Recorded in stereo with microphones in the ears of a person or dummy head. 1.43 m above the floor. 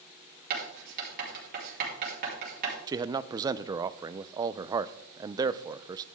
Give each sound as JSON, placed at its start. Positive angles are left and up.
{"t": 0.5, "sound": "writing", "side_deg": -55, "distance_m": 4.5}
{"t": 2.9, "sound": "a man speaking", "side_deg": -20, "distance_m": 0.5}